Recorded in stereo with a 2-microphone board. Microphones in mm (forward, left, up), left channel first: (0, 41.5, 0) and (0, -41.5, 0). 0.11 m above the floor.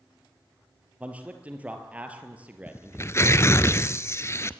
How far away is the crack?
I don't hear a crack.